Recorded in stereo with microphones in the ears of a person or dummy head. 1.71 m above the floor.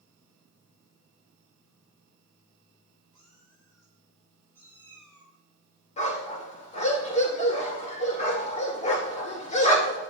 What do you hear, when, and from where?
3.1 s a cat meowing: 25° left (ahead or behind), 4.5 m; by 5.4 s 5° left (ahead or behind), 6 m
6.0 s a dog barking: 40° left (ahead or behind), 2.5 m